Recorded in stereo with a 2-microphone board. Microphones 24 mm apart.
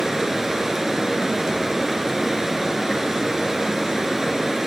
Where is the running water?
20° right (ahead or behind), 2 m.